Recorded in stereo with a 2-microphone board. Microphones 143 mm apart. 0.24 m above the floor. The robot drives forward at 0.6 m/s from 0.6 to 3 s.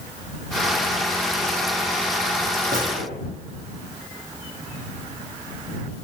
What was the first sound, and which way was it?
A gunshot, 85° right.